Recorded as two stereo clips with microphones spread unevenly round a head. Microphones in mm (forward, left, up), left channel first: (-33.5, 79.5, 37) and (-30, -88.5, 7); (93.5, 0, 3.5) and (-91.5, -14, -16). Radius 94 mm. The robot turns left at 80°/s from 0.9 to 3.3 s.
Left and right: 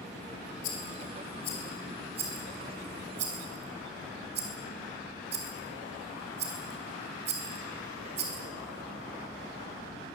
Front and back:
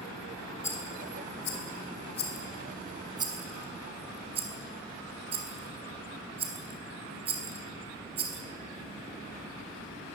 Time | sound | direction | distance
0.6 | a rattle | 80° left | 4.5 m